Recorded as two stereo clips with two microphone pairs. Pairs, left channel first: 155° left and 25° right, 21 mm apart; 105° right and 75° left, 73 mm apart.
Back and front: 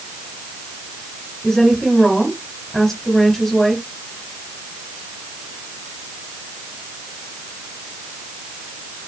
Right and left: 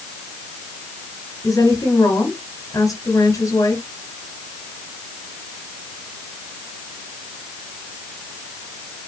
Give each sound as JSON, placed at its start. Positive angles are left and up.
{"t": 1.4, "sound": "a woman speaking", "azimuth_deg": -135, "distance_m": 3.5}